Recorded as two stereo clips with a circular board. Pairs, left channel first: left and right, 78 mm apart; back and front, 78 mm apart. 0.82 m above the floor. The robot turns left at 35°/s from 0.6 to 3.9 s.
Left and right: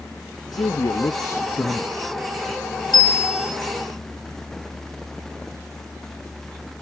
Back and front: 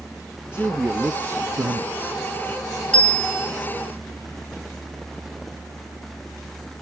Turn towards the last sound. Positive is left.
turn(degrees=70)